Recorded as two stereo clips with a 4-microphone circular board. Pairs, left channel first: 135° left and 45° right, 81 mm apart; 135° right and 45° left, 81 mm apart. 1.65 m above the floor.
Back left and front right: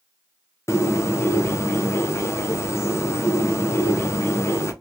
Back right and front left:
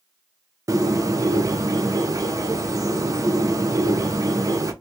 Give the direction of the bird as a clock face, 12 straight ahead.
9 o'clock.